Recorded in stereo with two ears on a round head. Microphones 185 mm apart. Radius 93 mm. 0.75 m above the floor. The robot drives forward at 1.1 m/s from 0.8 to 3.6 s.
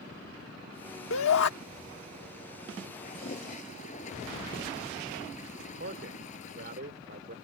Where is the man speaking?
50° right (ahead or behind).